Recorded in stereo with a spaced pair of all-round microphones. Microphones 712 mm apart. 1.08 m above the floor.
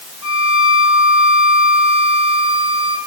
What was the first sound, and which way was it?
A violin, 65° right (ahead or behind).